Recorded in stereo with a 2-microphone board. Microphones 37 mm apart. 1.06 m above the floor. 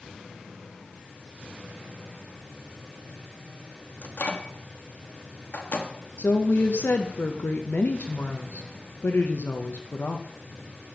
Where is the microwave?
50° left (ahead or behind), 1.0 m.